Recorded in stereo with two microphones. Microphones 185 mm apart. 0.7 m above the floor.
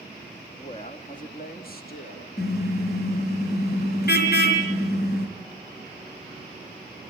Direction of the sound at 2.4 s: 65° left (ahead or behind).